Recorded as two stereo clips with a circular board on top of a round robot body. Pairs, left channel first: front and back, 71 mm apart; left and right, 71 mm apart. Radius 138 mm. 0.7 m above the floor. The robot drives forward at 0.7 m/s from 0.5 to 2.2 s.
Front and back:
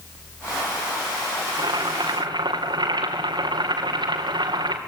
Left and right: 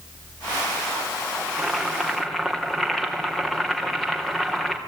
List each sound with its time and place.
1.5 s boiling: 175° left, 2.5 m